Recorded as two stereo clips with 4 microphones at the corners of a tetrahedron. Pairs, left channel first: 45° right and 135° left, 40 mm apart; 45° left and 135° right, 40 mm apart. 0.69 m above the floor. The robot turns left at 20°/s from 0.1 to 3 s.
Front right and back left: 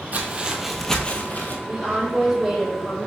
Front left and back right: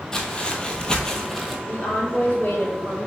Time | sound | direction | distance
0.1 | footsteps | 115° left | 0.9 m
1.7 | a woman speaking | 65° left | 1.7 m